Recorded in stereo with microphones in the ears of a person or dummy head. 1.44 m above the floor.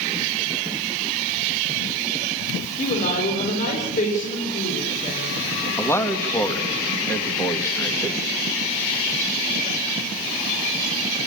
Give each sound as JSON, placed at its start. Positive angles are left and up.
{"t": 2.8, "sound": "a woman speaking", "side_deg": 35, "distance_m": 5.0}
{"t": 5.8, "sound": "a man speaking", "side_deg": 20, "distance_m": 1.8}